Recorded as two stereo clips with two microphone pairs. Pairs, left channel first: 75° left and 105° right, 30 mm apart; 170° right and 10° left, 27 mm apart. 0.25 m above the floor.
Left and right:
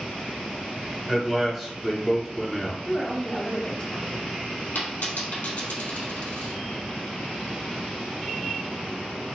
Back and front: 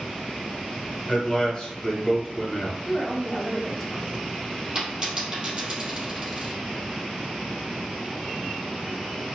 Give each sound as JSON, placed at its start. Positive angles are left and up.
{"t": 1.1, "sound": "a man speaking", "azimuth_deg": 170, "distance_m": 1.0}
{"t": 2.9, "sound": "a woman speaking", "azimuth_deg": 100, "distance_m": 1.1}
{"t": 4.8, "sound": "a dropped coin", "azimuth_deg": 70, "distance_m": 1.7}